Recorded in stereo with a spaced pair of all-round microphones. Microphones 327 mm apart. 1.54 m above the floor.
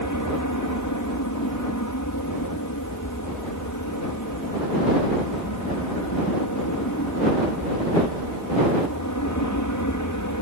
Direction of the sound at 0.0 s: 65° left (ahead or behind).